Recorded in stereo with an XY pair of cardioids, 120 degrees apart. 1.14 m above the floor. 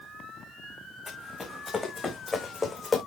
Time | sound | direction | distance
1.1 | running footsteps | 20° left | 4.5 m